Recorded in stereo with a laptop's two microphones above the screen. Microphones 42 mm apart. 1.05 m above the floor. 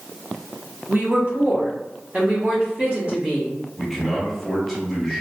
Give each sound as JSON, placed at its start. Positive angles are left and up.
{"t": 0.9, "sound": "a woman speaking", "side_deg": -45, "distance_m": 0.9}
{"t": 3.8, "sound": "a man speaking", "side_deg": 5, "distance_m": 1.1}